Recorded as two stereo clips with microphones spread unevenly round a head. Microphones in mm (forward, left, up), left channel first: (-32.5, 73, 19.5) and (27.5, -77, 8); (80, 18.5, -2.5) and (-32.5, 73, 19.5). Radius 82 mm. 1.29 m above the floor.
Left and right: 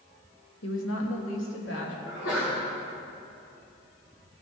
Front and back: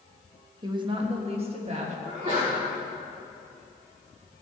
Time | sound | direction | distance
0.6 | a woman speaking | 100° left | 1.3 m
2.0 | a sneeze | 105° left | 4 m